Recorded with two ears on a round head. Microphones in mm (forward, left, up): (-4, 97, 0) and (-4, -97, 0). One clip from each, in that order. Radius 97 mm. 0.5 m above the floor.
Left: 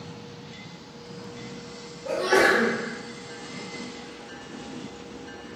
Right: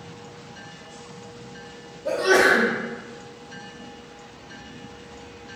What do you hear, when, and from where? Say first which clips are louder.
2.0 s a sneeze: right 3 dB; 40° right (ahead or behind), 1.0 m